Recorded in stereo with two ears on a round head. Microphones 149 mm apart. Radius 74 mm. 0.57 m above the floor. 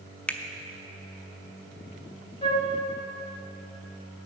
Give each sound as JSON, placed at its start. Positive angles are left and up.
{"t": 0.3, "sound": "a finger snap", "side_deg": 5, "distance_m": 0.5}
{"t": 2.4, "sound": "a flute", "side_deg": 30, "distance_m": 1.1}